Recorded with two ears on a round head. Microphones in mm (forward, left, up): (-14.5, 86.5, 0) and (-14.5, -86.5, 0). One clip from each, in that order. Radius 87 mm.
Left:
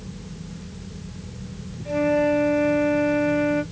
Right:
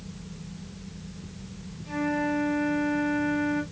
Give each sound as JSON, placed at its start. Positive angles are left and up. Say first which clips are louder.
{"t": 1.9, "sound": "a flute", "louder": "left 8 dB", "side_deg": 10, "distance_m": 2.0}